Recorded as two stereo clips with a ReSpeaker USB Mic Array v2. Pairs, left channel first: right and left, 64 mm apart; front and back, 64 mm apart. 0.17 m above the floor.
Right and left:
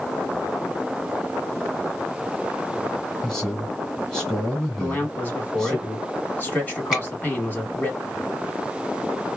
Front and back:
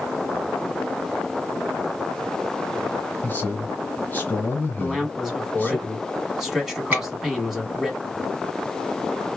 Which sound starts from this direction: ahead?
A man speaking, at 3.2 s.